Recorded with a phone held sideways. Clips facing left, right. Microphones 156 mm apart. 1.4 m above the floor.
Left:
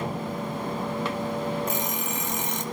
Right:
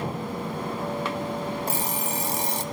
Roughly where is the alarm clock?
Right.